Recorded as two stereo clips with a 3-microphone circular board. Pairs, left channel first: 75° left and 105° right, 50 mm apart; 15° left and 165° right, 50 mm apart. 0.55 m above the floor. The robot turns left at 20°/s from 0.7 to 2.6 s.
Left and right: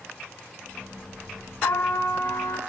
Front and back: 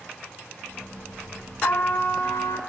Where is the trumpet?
55° left, 4 m; by 2.6 s 35° left, 4 m.